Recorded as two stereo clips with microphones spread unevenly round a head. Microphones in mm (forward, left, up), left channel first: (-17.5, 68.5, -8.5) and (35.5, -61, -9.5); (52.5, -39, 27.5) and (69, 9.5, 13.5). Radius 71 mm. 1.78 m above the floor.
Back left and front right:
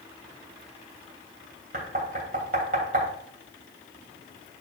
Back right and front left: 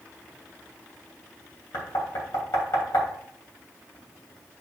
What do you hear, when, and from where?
1.7 s knocking: 105° right, 3 m